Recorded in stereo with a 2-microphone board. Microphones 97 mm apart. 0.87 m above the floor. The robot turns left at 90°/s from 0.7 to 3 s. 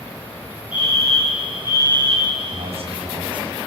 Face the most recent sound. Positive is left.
turn(degrees=-120)